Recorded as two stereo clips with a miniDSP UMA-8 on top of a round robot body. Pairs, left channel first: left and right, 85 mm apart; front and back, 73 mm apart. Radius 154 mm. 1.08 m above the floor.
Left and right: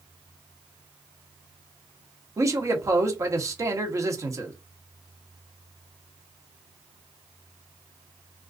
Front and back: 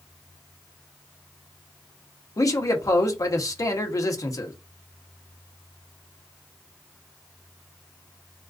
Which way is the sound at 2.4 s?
40° right.